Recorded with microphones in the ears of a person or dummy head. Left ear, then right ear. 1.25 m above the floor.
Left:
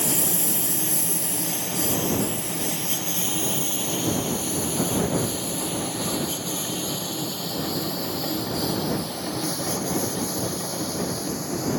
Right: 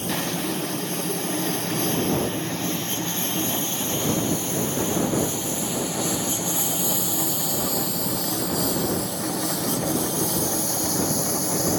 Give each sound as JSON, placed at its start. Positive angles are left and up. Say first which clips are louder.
{"t": 0.0, "sound": "a lawn mower", "louder": "even", "side_deg": 30}